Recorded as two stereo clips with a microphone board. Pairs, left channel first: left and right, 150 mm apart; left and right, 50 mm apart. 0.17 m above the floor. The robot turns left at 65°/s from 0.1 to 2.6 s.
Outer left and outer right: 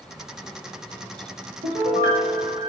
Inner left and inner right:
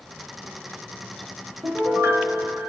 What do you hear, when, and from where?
1.6 s a piano: 75° right, 3 m; by 2.7 s 135° right, 3 m